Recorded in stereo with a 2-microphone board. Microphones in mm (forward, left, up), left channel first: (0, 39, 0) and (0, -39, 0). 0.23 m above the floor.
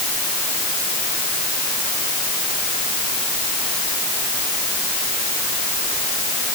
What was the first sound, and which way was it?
Only background noise.